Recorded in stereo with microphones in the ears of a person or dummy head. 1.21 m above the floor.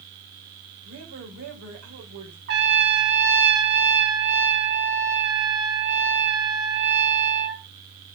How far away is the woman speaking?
About 4.5 m.